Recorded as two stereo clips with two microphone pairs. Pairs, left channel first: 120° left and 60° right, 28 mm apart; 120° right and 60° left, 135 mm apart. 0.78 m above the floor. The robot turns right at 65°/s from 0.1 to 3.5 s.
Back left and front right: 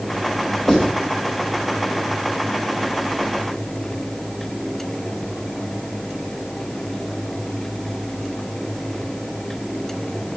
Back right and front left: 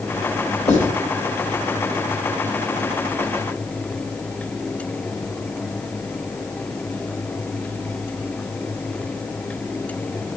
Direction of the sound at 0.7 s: 150° right.